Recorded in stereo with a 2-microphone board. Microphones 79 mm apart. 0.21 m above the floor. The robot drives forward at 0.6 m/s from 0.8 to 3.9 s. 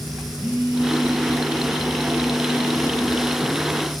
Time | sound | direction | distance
0.4 | a phone buzzing | 25° right (ahead or behind) | 1.4 m